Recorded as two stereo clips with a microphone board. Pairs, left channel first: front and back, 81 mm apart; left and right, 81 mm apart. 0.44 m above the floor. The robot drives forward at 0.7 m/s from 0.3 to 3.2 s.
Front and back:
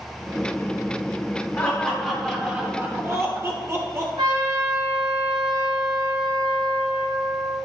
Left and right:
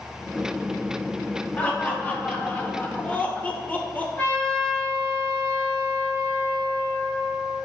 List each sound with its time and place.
1.6 s laughter: 50° left, 1.2 m; by 4.1 s 150° left, 1.4 m
4.2 s a trumpet: 160° left, 3.5 m